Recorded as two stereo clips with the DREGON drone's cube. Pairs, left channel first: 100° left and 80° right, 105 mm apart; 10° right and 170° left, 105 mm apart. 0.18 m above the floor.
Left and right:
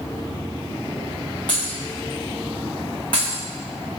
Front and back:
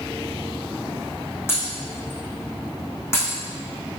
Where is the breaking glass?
55° left, 3 m.